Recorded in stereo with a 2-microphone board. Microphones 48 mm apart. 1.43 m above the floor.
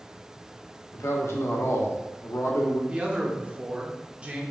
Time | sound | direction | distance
0.9 | a man speaking | 75° left (ahead or behind) | 0.9 m
2.9 | a man speaking | 25° right (ahead or behind) | 0.9 m